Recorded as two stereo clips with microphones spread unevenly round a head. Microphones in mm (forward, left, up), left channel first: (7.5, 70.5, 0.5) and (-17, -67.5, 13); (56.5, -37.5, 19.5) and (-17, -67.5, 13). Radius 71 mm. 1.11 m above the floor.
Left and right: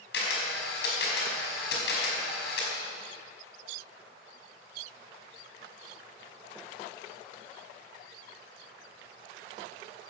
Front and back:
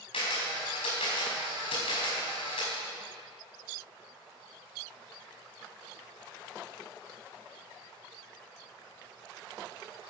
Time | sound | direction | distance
0.1 | a camera shutter | 65° left | 4.5 m